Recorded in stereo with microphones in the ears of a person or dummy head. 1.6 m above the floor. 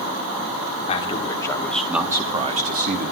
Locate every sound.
0.9 s a man speaking: 30° left (ahead or behind), 2.5 m; by 3.1 s 60° right (ahead or behind), 2.0 m